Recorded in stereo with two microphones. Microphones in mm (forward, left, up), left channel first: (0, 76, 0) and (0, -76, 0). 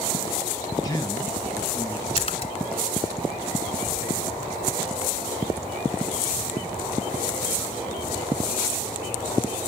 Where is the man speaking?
25° left (ahead or behind), 1.5 m; by 2.1 s 15° left (ahead or behind), 2.5 m.